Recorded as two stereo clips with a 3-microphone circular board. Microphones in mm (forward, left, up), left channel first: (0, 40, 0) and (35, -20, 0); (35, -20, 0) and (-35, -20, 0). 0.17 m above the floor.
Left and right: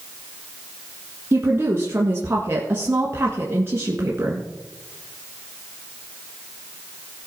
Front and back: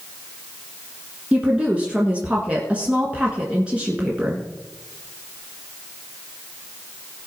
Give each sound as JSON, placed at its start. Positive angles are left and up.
{"t": 1.3, "sound": "a woman speaking", "azimuth_deg": -110, "distance_m": 1.8}